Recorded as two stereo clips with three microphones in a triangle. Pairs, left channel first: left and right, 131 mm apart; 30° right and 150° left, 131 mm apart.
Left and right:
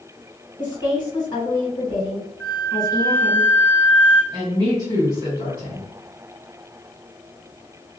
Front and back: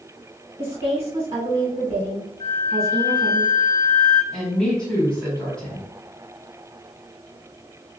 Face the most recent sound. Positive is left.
turn(degrees=-105)